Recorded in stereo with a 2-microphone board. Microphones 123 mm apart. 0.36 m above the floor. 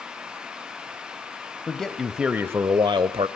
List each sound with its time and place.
1.7 s a man speaking: 5° left (ahead or behind), 1.8 m; by 3.3 s 50° right (ahead or behind), 1.3 m